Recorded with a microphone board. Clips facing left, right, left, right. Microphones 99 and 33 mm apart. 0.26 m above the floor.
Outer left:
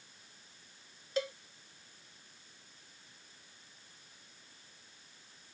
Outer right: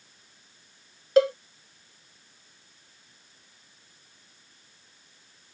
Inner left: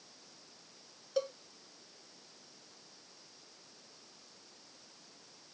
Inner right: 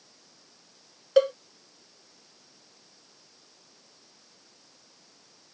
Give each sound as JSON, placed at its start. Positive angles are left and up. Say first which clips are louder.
{"t": 1.2, "sound": "a cowbell", "louder": "outer right 16 dB, inner right 14 dB", "side_deg": -90}